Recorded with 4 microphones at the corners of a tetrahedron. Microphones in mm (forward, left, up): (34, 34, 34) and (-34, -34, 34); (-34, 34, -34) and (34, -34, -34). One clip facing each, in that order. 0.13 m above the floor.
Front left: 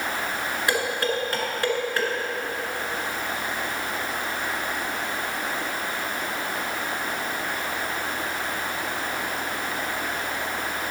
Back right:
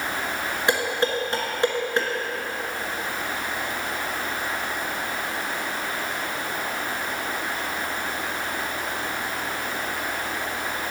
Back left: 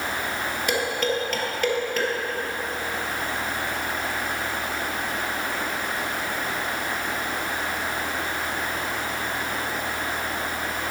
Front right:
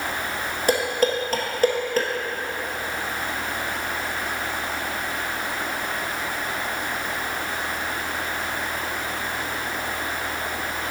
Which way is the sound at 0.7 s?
75° right.